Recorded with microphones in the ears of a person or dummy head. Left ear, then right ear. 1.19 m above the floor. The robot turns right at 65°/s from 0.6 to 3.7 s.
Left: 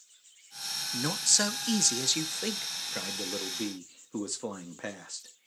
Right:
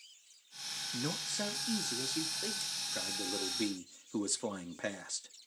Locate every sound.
0.9 s a man speaking: 15° left, 0.6 m; by 5.5 s 165° right, 0.6 m